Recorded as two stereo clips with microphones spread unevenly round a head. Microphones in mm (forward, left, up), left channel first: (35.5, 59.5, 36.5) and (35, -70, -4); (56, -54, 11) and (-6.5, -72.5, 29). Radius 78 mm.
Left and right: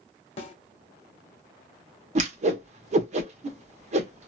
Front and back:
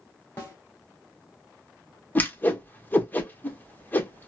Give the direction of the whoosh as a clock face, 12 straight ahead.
2 o'clock.